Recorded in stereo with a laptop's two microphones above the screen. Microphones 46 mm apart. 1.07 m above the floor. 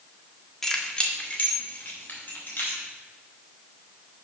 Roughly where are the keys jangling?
Centre.